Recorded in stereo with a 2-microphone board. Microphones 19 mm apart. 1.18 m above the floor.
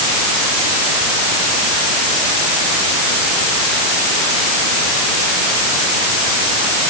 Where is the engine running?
No engine running in this recording.